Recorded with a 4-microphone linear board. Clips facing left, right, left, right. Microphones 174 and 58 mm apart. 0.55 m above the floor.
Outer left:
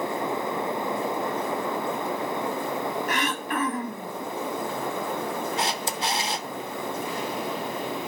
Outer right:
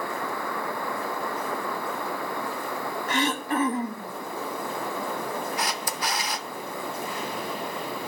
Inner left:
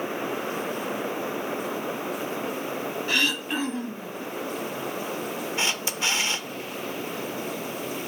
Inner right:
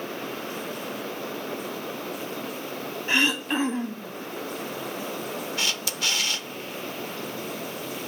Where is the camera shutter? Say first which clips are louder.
Outer left 2 dB, inner left 3 dB; 25° left (ahead or behind), 0.6 m.